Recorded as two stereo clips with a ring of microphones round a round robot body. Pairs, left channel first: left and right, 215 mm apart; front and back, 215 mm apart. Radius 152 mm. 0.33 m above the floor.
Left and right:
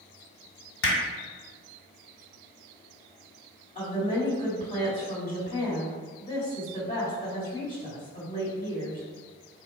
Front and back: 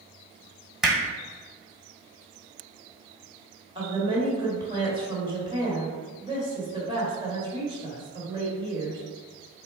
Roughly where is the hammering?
Left.